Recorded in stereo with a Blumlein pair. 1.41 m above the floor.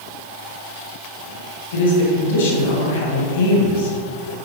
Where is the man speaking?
60° left, 2.5 m.